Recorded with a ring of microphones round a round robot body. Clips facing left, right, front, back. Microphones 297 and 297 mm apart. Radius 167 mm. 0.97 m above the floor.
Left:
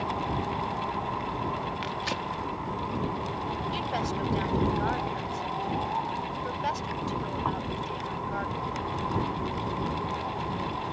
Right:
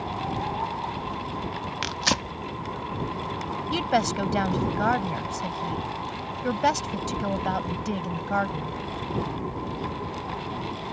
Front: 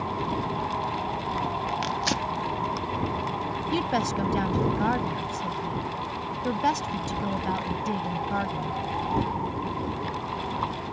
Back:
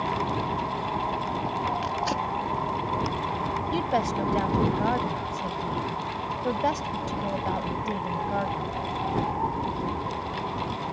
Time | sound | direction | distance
1.8 | tearing paper | 60° right | ?
3.7 | a woman speaking | 75° right | ?